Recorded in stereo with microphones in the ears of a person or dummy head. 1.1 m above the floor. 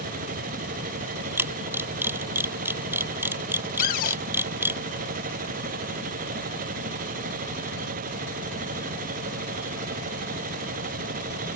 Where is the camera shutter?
15° right (ahead or behind).